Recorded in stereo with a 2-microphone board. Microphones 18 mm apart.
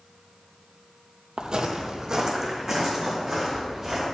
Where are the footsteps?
50° right (ahead or behind), 0.7 m; by 4.0 s 20° right (ahead or behind), 3 m.